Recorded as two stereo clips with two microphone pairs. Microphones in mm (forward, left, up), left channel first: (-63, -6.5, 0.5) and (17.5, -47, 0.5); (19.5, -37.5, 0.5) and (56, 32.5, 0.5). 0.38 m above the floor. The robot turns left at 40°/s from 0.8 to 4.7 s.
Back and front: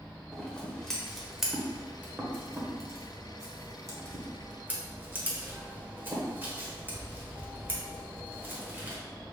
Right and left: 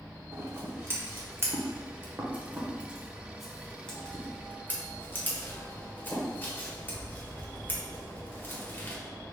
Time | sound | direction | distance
0.3 | scissors | 80° left | 1.0 m